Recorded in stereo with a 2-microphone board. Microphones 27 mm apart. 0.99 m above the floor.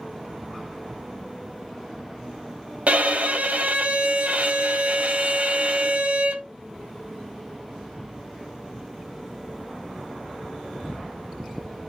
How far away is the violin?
About 0.7 m.